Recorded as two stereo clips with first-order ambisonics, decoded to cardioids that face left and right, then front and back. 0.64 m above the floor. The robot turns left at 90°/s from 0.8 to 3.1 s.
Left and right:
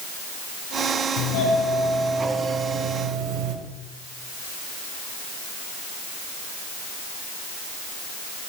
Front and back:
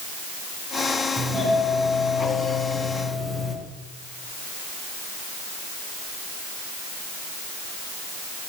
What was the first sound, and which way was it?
A doorbell, 100° left.